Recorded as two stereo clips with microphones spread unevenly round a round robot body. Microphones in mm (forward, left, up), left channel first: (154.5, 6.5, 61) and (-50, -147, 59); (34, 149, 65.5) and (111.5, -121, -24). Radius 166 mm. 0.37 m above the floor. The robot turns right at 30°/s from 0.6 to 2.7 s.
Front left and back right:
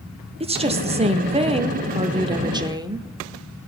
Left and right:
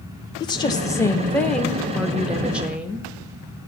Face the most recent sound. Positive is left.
turn(degrees=-95)